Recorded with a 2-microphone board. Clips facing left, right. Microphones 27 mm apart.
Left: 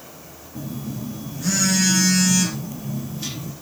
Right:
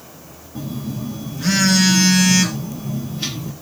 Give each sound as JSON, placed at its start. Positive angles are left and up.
{"t": 0.6, "sound": "a phone buzzing", "side_deg": -40, "distance_m": 2.0}